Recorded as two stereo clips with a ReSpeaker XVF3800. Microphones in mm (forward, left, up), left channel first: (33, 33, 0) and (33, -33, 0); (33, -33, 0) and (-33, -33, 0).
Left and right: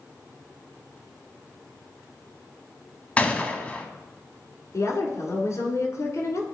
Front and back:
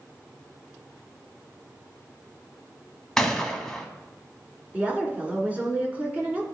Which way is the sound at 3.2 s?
65° left.